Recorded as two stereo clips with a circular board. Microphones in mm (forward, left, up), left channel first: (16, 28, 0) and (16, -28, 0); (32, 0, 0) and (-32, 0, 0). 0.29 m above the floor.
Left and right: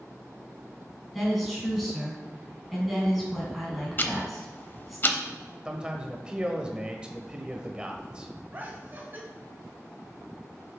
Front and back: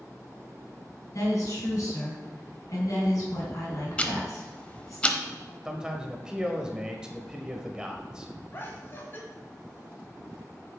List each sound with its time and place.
1.1 s a woman speaking: straight ahead, 3 m
4.0 s ticking: 60° left, 0.6 m
5.7 s a man speaking: 130° right, 0.9 m
8.5 s laughter: 45° right, 1.5 m